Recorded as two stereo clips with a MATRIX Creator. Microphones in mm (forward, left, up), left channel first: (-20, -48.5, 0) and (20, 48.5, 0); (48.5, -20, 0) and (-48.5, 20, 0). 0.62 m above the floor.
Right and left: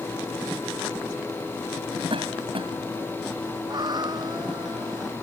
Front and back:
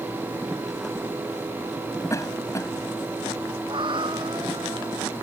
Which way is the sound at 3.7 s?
115° left.